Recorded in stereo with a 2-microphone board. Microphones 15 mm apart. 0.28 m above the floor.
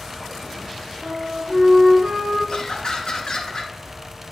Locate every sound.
1.0 s a flute: 50° right (ahead or behind), 3 m
2.5 s laughter: 50° left (ahead or behind), 3 m